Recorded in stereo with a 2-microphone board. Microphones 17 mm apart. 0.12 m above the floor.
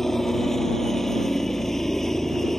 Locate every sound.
0.0 s a helicopter: 25° left (ahead or behind)